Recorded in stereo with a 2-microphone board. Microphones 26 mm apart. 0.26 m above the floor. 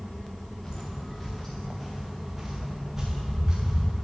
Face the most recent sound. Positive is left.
turn(degrees=-20)  # may be behind; listen again after turning